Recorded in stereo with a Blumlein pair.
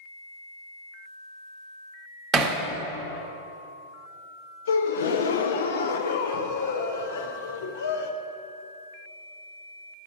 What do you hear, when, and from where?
2.3 s hammering: 20° right, 0.8 m
4.7 s a gasp: 65° left, 0.5 m